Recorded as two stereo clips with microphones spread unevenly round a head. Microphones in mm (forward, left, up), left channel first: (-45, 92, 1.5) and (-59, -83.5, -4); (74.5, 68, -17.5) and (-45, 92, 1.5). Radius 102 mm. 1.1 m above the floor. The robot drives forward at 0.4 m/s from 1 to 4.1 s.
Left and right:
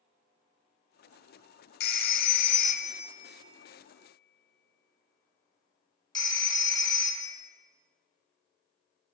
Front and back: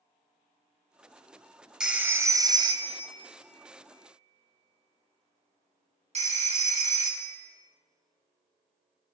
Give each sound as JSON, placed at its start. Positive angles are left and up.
{"t": 1.8, "sound": "a phone ringing", "azimuth_deg": 90, "distance_m": 0.6}